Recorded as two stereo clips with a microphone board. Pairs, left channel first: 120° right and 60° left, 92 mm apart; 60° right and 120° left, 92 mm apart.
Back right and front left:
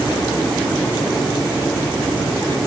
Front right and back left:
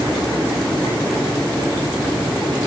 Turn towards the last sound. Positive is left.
No sound to turn to.